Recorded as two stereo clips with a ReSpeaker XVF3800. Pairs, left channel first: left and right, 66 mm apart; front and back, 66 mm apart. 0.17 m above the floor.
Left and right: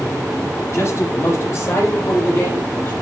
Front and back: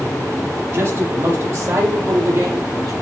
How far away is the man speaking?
About 7.5 m.